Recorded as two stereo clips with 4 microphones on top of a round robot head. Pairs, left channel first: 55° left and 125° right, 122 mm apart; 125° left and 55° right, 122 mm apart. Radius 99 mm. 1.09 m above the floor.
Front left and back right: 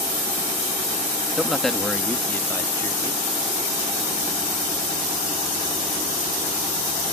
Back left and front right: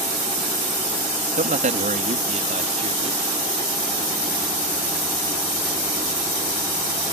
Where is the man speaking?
40° right; by 3.2 s 10° right.